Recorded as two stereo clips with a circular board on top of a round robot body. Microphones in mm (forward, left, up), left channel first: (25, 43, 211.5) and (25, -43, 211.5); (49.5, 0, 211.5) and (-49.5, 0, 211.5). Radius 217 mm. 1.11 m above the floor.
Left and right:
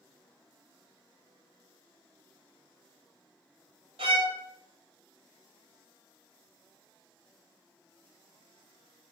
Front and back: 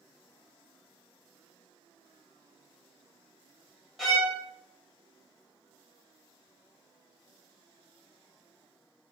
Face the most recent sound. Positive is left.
turn(degrees=-90)